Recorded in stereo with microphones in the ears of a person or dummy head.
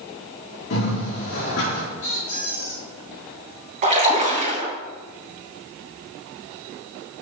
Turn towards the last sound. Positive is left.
turn(degrees=-40)  # may be behind; listen again after turning